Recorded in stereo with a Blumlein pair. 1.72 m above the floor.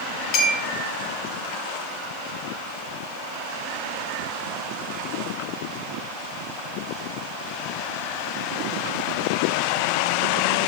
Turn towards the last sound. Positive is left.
turn(degrees=35)